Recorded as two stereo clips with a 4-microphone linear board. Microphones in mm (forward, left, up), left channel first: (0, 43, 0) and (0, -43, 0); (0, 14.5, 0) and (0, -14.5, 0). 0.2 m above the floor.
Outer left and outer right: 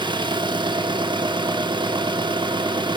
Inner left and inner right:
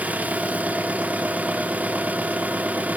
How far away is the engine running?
About 1.1 m.